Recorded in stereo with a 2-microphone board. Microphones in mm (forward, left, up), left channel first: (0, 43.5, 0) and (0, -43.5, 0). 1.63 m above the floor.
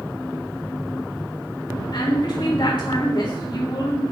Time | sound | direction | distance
1.9 | a woman speaking | 60° left (ahead or behind) | 3 m